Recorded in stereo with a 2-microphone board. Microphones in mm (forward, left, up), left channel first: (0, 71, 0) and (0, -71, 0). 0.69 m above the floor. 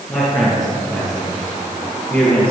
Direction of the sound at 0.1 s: 20° left (ahead or behind).